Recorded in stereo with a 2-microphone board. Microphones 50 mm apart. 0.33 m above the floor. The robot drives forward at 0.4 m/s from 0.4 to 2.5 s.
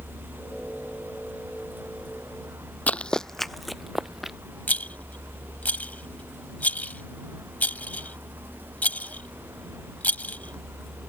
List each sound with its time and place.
0.0 s a vehicle: 80° right; by 11.1 s 75° right (ahead or behind)
2.9 s running footsteps: 35° left (ahead or behind); by 4.4 s 5° right (ahead or behind)
4.7 s a rattle: 35° left (ahead or behind)